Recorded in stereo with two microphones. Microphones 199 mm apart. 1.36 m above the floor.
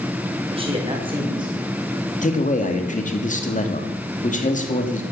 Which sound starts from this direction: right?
A man speaking, at 0.5 s.